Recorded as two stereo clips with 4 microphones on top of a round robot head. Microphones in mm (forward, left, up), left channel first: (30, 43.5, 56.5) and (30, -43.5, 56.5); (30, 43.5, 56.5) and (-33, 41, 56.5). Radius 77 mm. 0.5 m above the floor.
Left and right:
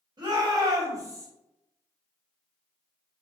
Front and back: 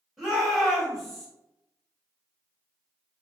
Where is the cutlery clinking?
No cutlery clinking in this recording.